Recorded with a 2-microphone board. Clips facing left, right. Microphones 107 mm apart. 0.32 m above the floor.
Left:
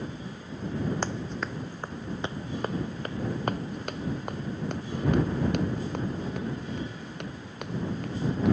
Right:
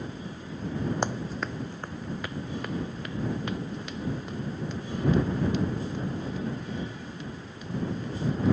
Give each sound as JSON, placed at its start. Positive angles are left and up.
{"t": 1.0, "sound": "running footsteps", "side_deg": -15}